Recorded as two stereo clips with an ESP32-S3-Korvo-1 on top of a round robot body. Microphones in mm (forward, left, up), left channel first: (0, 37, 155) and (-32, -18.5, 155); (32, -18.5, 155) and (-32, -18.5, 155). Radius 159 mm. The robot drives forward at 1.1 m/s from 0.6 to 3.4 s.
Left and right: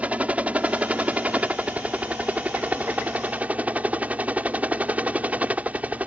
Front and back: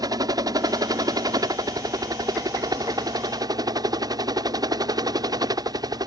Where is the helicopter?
170° left.